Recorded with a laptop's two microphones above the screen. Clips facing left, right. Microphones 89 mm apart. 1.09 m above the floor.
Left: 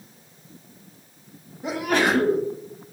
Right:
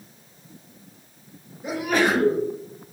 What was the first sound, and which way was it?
A sneeze, 80° left.